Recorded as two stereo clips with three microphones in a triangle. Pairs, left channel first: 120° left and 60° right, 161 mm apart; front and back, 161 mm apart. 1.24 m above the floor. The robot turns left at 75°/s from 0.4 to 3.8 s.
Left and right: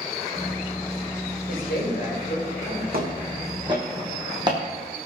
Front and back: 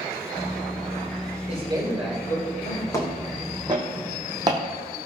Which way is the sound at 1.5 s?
135° left.